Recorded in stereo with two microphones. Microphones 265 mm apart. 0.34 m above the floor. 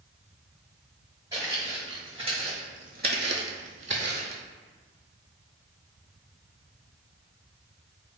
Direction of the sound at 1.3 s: 10° right (ahead or behind).